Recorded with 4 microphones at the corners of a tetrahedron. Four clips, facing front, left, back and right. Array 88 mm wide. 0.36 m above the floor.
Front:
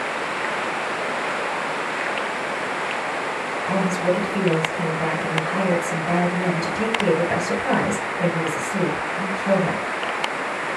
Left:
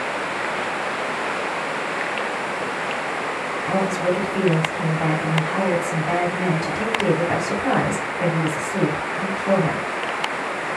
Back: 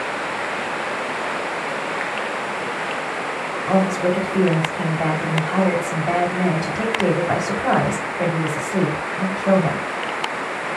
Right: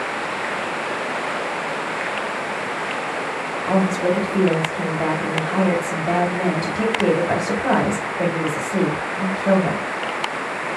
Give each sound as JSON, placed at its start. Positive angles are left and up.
{"t": 3.7, "sound": "a woman speaking", "azimuth_deg": -145, "distance_m": 2.0}